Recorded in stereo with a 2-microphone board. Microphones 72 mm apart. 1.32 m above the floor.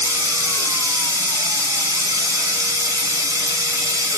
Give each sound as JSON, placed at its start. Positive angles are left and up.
{"t": 0.0, "sound": "running water", "side_deg": -50, "distance_m": 0.8}